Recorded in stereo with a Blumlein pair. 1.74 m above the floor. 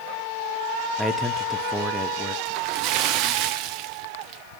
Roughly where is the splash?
Ahead right.